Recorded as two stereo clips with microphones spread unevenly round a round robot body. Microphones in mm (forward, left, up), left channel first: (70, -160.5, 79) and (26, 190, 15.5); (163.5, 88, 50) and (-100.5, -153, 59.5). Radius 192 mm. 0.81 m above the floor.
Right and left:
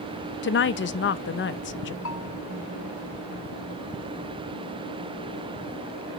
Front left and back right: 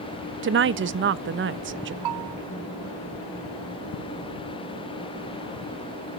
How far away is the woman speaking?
About 0.6 m.